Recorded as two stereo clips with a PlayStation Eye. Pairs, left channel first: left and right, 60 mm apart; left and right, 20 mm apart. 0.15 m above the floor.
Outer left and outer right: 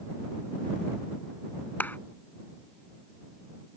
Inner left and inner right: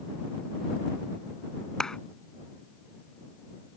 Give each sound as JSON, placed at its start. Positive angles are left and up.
{"t": 1.8, "sound": "a clap", "side_deg": 35}